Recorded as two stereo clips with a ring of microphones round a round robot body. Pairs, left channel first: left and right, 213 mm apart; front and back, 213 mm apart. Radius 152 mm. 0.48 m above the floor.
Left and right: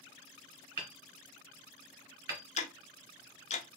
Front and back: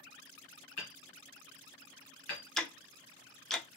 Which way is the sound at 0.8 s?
50° right.